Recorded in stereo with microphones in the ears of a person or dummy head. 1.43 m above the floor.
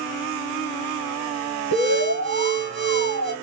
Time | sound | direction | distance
1.7 | an alarm | 55° right (ahead or behind) | 2.0 m